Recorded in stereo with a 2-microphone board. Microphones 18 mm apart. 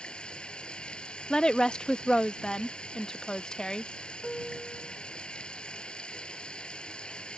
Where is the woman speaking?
45° left (ahead or behind).